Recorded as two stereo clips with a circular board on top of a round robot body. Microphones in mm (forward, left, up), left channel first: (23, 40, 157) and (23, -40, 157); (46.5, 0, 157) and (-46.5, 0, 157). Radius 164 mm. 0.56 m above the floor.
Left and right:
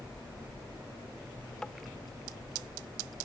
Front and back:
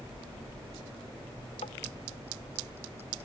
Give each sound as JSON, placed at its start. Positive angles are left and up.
{"t": 1.6, "sound": "tapping", "azimuth_deg": 10}